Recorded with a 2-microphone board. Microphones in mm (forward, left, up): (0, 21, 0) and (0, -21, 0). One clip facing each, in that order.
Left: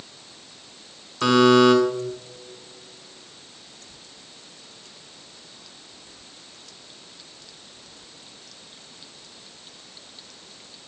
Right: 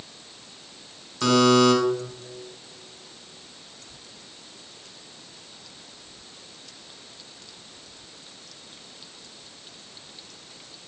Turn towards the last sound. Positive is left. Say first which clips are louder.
# left 3 dB
turn(degrees=10)  # may be behind; listen again after turning